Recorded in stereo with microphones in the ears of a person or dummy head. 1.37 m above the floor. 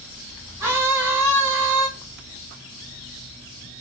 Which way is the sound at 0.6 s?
15° right (ahead or behind).